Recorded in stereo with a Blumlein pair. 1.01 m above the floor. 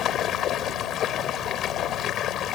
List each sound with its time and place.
0.0 s running water: 30° left